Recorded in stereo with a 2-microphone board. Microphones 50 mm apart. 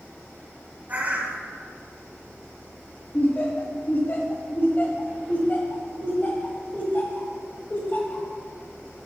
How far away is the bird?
About 1.5 m.